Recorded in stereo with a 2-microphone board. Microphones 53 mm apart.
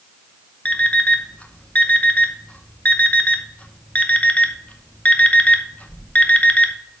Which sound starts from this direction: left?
An alarm clock, at 0.7 s.